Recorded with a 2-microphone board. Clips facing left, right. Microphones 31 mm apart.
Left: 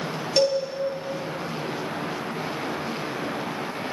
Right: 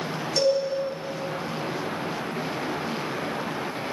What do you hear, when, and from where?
0.4 s a cowbell: 40° left (ahead or behind), 3 m